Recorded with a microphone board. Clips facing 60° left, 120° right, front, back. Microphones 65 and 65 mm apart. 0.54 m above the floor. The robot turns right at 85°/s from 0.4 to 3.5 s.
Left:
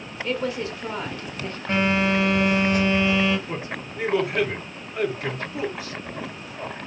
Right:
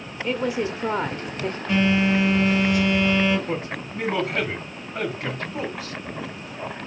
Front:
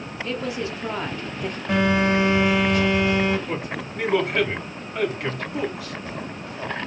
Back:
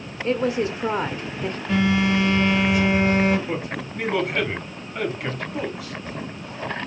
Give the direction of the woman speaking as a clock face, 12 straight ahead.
6 o'clock.